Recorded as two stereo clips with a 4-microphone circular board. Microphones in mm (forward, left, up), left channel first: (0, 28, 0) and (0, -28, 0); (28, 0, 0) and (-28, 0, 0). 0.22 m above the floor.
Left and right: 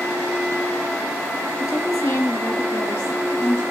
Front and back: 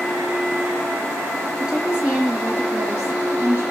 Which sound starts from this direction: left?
A woman speaking, at 1.6 s.